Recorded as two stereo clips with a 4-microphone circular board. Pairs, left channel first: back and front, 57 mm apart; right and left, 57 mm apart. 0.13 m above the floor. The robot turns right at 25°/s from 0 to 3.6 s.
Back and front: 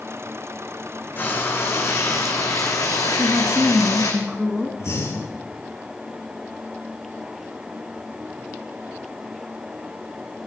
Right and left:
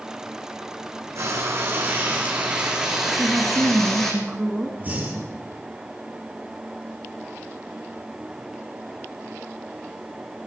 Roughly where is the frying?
Behind left.